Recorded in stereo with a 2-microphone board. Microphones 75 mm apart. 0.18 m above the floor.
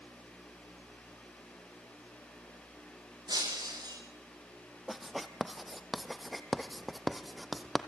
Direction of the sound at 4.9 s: Centre (ahead or behind).